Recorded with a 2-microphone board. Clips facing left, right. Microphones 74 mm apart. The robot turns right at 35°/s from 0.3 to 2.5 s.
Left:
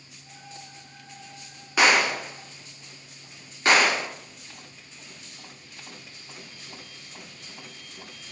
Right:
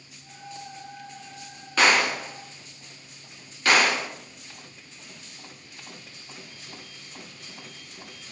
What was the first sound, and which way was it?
A gunshot, 10° left (ahead or behind).